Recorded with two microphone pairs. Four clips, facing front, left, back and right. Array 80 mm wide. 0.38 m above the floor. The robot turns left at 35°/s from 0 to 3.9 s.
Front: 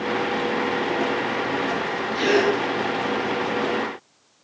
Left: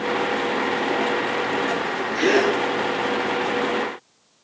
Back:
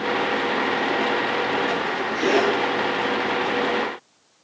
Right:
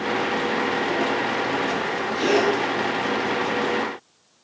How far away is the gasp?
About 3.5 m.